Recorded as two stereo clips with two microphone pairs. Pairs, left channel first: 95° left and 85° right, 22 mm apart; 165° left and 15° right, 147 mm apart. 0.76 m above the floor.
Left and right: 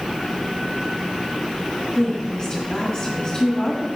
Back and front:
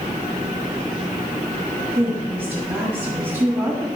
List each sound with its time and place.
1.9 s a woman speaking: 25° left, 1.2 m